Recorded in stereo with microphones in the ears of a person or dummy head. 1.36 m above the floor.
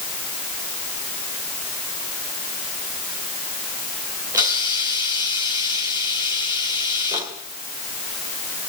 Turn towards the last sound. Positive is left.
turn(degrees=-20)  # may be behind; listen again after turning